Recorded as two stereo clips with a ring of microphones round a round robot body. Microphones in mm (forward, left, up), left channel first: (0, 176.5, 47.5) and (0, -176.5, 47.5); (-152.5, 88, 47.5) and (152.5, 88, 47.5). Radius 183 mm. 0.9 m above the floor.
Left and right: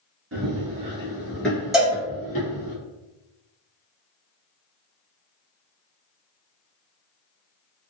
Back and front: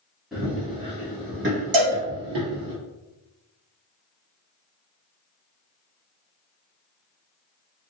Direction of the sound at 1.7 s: Straight ahead.